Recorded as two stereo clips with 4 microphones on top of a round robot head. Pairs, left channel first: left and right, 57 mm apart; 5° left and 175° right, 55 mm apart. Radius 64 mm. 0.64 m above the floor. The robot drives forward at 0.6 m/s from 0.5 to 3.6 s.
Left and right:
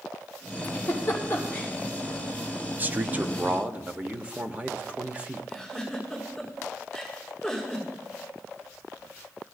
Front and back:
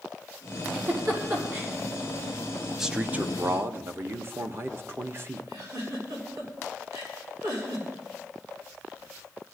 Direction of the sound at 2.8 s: 95° right.